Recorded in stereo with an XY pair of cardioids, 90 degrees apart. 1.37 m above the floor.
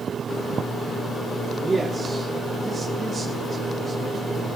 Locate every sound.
1.6 s a man speaking: 20° right, 2.5 m